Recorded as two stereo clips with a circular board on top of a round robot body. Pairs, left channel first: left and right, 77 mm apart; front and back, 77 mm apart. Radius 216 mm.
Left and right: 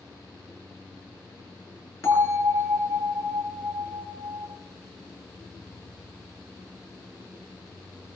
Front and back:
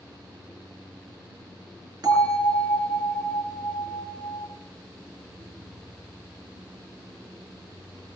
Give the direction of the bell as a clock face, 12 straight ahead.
7 o'clock.